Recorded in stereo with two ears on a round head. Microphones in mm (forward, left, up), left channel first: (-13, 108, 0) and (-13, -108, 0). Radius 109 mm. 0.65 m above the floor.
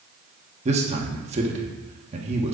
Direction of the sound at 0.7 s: 25° right (ahead or behind).